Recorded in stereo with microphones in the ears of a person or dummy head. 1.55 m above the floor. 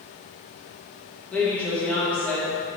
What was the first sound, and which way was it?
A woman speaking, 5° left (ahead or behind).